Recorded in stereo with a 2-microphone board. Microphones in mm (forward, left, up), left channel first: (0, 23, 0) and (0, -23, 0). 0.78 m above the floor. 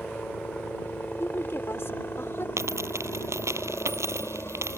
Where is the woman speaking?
60° left (ahead or behind).